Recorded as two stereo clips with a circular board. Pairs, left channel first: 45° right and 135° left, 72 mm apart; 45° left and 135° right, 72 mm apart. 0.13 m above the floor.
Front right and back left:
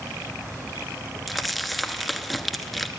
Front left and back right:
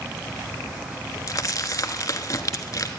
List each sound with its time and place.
1.3 s crumpling: 45° left, 1.0 m